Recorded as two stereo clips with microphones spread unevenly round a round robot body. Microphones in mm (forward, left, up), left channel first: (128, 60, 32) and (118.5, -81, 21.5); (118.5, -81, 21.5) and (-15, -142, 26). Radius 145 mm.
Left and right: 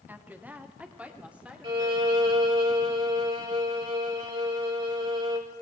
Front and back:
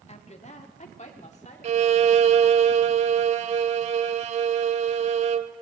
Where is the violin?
155° right, 0.7 m.